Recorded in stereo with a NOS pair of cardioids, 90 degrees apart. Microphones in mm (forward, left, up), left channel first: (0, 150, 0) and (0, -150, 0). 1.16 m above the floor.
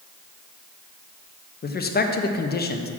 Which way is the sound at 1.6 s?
35° left.